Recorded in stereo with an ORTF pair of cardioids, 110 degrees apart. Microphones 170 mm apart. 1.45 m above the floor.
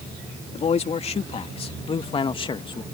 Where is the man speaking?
40° left; by 2.8 s 30° left.